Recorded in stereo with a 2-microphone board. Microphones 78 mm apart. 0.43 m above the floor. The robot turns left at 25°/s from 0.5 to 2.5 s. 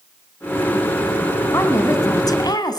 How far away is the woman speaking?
About 3 m.